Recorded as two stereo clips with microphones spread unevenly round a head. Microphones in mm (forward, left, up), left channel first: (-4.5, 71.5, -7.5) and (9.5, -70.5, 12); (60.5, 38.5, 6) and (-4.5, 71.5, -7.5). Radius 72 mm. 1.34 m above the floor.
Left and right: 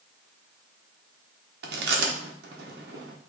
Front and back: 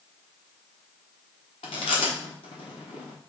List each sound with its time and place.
1.6 s chewing: 65° right, 0.9 m